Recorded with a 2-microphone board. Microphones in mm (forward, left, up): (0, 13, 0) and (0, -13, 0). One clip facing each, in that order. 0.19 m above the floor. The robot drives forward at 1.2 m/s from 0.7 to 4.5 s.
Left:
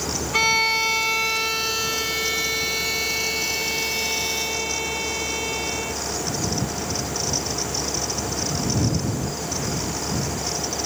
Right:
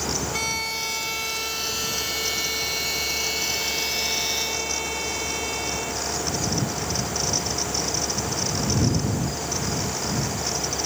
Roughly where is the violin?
Left.